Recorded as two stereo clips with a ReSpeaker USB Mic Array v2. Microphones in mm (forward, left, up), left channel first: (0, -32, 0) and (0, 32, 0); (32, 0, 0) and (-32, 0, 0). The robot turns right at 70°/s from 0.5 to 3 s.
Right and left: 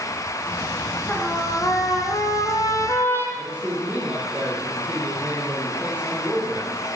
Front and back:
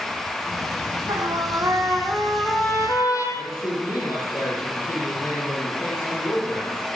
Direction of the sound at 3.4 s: 25° left.